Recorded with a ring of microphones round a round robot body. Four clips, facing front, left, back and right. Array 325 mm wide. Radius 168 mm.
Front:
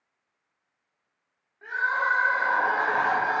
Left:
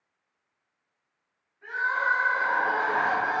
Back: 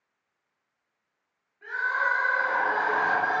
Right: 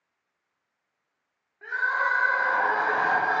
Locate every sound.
1.6 s crying: 75° right, 0.8 m